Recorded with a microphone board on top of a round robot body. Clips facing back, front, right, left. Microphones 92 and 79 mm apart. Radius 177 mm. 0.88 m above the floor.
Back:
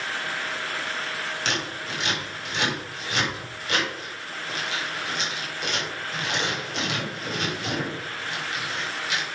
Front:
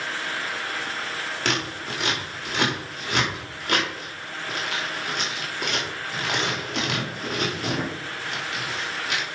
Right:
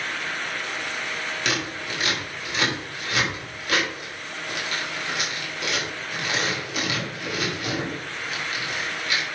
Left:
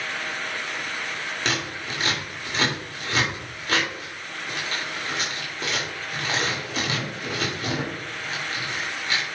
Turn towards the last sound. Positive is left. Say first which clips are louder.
# front 5 dB, even
turn(degrees=40)